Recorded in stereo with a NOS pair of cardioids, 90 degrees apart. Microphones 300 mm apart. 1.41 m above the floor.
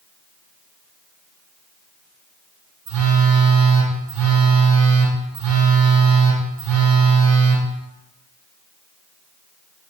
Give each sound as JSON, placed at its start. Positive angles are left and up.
{"t": 2.9, "sound": "a phone buzzing", "azimuth_deg": -65, "distance_m": 1.1}